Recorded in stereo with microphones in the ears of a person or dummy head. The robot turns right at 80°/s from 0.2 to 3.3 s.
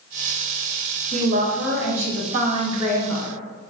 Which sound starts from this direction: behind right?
A woman speaking, at 1.1 s.